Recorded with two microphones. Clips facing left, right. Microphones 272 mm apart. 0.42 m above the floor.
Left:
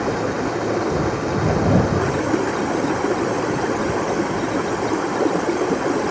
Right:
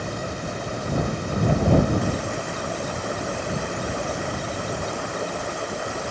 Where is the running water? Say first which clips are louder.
Left 10 dB; 90° left.